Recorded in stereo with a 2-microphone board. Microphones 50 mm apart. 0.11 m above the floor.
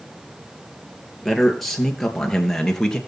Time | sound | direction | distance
1.2 | a man speaking | centre (ahead or behind) | 2.5 m